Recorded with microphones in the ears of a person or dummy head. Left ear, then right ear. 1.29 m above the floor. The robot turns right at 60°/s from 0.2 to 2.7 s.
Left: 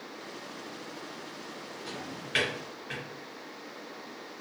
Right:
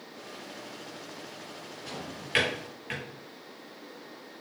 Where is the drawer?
15° left (ahead or behind), 2 m; by 3.0 s 30° right (ahead or behind), 2 m.